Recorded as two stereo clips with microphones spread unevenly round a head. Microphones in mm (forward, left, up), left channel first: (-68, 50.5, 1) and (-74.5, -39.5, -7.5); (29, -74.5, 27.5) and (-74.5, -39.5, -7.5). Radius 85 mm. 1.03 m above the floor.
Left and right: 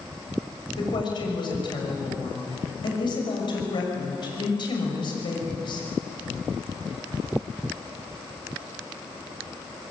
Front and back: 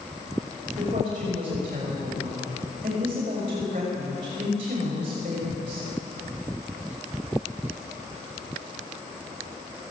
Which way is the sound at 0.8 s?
110° left.